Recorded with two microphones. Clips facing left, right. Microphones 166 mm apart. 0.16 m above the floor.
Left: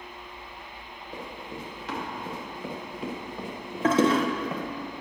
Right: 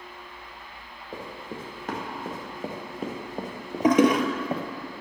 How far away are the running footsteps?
About 4 m.